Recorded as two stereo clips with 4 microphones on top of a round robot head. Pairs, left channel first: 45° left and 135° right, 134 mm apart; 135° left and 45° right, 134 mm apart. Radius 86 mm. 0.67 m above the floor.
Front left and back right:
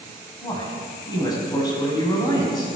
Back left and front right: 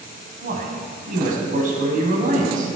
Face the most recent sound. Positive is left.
turn(degrees=-20)